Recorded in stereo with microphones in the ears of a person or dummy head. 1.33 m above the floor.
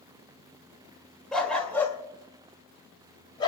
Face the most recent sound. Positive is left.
turn(degrees=30)  # may be behind; listen again after turning